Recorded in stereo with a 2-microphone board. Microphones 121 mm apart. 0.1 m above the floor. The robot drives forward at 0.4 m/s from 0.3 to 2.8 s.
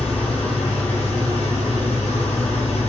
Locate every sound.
0.0 s an engine running: 60° left (ahead or behind), 1.6 m